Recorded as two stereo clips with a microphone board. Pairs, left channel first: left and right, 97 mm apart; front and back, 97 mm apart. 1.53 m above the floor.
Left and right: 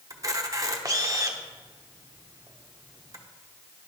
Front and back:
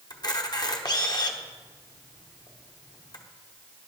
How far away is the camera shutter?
About 0.9 m.